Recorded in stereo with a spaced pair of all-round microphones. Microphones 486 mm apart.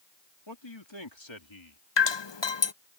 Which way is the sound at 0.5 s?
60° left (ahead or behind).